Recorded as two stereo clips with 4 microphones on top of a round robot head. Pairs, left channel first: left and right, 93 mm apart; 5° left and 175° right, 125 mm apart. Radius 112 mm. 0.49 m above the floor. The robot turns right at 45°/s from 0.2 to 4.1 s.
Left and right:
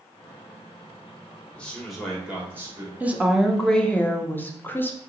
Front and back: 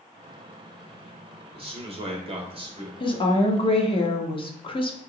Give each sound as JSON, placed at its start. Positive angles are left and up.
{"t": 1.5, "sound": "a man speaking", "azimuth_deg": 160, "distance_m": 1.3}
{"t": 3.0, "sound": "a woman speaking", "azimuth_deg": -25, "distance_m": 0.9}